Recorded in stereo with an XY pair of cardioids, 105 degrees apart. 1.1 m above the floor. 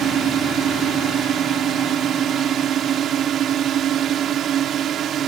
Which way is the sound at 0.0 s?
65° right.